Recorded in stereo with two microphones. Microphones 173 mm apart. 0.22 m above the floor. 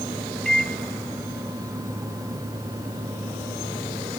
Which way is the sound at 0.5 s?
5° left (ahead or behind).